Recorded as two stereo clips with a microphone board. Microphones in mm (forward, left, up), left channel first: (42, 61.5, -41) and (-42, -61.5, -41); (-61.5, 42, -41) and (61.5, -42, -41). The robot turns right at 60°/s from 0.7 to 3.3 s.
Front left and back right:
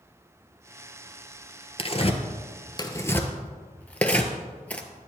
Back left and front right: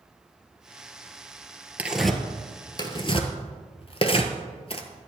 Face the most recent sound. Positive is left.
turn(degrees=130)